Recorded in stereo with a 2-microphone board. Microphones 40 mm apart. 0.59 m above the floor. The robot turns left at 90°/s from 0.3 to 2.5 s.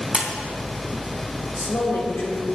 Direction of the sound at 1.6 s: 125° left.